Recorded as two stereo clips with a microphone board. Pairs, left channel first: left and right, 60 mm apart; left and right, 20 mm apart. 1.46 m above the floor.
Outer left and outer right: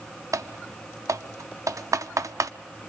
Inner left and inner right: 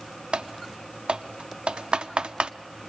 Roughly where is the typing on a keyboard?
Right.